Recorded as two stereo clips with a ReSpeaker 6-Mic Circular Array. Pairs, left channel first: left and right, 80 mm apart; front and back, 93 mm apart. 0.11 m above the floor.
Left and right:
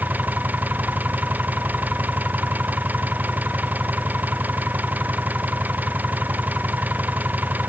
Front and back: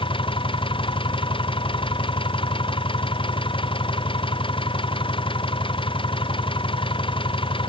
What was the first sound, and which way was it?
An engine running, 20° right.